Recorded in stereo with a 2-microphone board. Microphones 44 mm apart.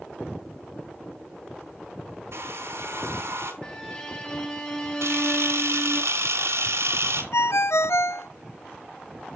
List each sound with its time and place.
2.3 s a hair dryer: 65° right (ahead or behind), 3 m
3.6 s a violin: 20° left (ahead or behind), 5 m
5.0 s a camera shutter: 75° right (ahead or behind), 2.5 m
7.3 s a ringtone: 70° left (ahead or behind), 0.5 m